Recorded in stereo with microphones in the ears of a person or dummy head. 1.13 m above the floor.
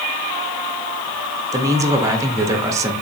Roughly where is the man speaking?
Centre.